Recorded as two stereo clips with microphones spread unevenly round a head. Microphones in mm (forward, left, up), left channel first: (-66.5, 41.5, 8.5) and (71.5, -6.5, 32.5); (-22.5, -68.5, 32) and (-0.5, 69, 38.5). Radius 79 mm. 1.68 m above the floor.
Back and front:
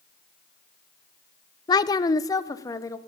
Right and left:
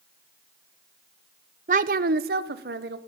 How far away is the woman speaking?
About 0.5 m.